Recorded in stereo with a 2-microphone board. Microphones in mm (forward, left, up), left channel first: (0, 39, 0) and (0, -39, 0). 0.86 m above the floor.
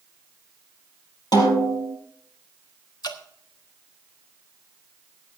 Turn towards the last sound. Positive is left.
turn(degrees=60)  # may be behind; listen again after turning